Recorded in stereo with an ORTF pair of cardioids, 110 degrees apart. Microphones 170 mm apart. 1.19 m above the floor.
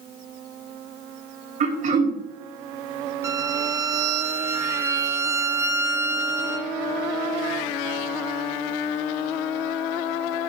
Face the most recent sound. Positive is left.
turn(degrees=-20)